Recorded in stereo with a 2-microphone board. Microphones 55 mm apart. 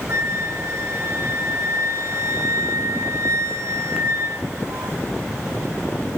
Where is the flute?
50° right (ahead or behind), 1.1 m.